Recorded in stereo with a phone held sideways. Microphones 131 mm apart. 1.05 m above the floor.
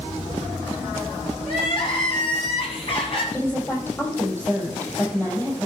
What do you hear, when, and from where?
1.4 s crying: 40° left (ahead or behind), 2.5 m
3.3 s a woman speaking: 20° left (ahead or behind), 5 m